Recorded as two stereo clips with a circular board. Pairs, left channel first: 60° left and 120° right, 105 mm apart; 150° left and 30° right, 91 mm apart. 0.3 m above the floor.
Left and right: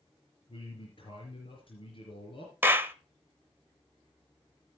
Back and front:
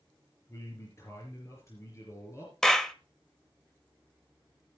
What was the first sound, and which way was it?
A man speaking, 95° left.